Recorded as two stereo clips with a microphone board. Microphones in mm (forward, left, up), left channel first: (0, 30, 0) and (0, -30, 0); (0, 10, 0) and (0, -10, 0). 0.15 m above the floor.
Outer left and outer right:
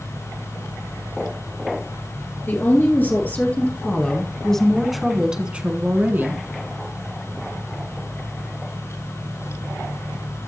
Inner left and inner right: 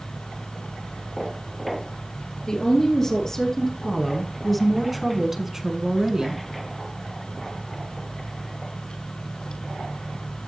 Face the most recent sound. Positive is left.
turn(degrees=-40)  # may be behind; listen again after turning